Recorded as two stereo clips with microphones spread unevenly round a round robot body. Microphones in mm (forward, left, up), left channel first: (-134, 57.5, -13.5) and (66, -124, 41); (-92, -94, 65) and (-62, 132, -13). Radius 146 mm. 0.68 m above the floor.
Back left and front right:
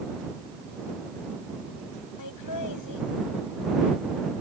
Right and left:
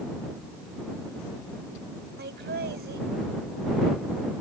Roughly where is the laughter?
Behind left.